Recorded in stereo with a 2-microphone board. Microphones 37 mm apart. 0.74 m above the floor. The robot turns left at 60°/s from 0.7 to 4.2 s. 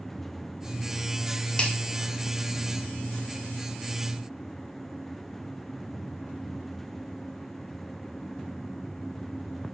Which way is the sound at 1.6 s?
30° left (ahead or behind).